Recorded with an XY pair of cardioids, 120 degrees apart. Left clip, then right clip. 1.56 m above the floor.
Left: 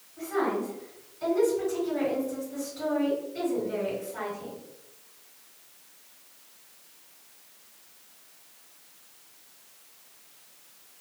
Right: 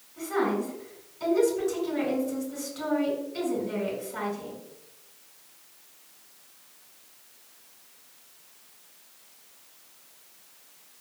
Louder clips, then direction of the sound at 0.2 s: Right 1 dB; 65° right.